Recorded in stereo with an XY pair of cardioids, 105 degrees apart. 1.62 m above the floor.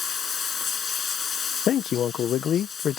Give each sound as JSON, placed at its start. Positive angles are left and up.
{"t": 0.0, "sound": "running water", "azimuth_deg": 45}
{"t": 1.7, "sound": "a man speaking", "azimuth_deg": 60}